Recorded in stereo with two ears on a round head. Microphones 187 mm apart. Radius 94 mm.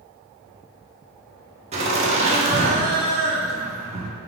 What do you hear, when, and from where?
1.7 s laughter: 30° right (ahead or behind), 1.0 m